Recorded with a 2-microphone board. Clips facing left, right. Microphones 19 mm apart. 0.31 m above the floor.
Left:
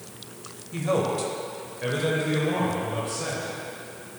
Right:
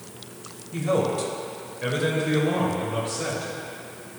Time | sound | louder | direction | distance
0.7 | a man speaking | right 1 dB | 10° left (ahead or behind) | 1.1 m